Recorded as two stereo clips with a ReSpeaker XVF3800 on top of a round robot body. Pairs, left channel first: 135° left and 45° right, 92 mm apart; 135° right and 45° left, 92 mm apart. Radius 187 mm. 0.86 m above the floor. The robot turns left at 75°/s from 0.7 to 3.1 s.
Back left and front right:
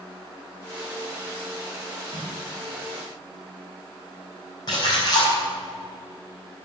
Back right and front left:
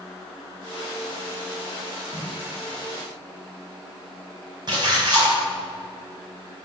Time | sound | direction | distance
2.1 | a snare drum | 170° left | 2.5 m
4.7 | a splash | 90° left | 5 m